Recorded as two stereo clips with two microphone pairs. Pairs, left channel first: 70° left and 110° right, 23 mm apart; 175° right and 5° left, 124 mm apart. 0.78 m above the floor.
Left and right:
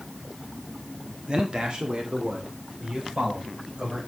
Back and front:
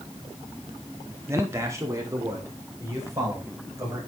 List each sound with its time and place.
1.3 s a man speaking: 60° right, 1.8 m